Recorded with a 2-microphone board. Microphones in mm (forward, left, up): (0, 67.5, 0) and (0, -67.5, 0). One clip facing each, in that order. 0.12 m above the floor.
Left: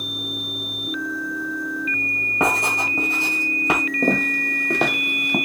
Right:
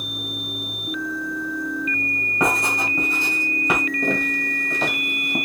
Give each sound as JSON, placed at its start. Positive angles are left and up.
{"t": 2.4, "sound": "writing", "side_deg": 20, "distance_m": 2.0}
{"t": 4.0, "sound": "footsteps", "side_deg": 40, "distance_m": 1.3}